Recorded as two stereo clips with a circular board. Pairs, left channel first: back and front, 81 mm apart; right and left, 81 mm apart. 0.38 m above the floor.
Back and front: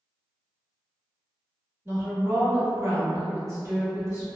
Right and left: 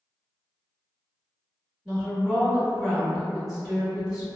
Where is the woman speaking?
10° left, 1.6 m.